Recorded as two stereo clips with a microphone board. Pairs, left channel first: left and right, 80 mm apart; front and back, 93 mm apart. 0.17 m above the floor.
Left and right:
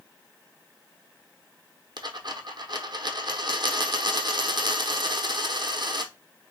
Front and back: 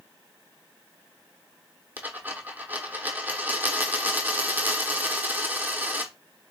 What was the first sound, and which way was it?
A dropped coin, 110° right.